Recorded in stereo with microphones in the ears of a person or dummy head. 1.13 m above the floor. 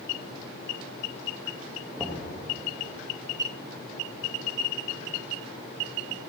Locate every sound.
2.0 s knocking: 5° right (ahead or behind), 0.9 m